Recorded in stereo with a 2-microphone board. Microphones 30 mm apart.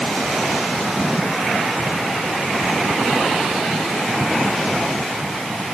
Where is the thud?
No thud in this recording.